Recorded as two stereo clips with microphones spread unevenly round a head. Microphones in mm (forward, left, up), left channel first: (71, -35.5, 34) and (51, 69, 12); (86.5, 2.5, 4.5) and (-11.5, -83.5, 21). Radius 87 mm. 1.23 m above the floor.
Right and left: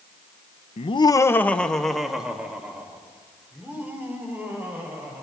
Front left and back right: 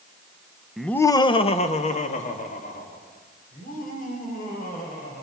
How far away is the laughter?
About 0.9 m.